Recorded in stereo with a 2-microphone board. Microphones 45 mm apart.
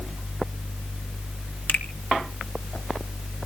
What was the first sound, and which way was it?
A finger snap, 45° left (ahead or behind).